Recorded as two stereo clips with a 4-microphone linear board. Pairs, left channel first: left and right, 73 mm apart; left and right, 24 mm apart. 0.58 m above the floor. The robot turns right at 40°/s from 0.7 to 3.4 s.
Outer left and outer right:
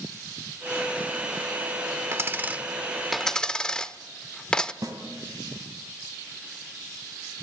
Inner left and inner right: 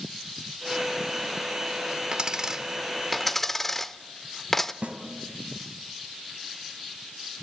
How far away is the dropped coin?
About 0.7 m.